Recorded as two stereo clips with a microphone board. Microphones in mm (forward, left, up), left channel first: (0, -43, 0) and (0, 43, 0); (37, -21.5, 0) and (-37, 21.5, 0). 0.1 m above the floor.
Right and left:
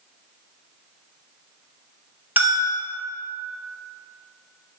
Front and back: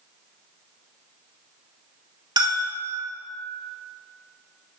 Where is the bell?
155° left, 2 m.